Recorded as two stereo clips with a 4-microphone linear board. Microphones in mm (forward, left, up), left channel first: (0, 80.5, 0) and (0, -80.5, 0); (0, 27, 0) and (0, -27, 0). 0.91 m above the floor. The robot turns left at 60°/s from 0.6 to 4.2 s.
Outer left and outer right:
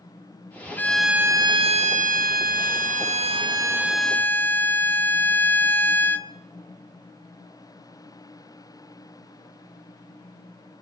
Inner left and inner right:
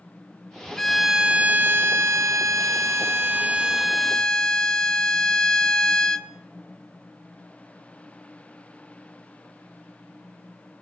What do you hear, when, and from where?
0.8 s a violin: 15° left, 0.8 m; by 6.3 s 165° left, 0.8 m